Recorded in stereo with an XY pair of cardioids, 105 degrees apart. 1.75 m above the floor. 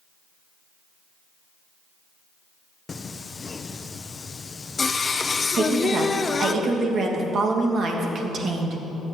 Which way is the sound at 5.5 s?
55° right.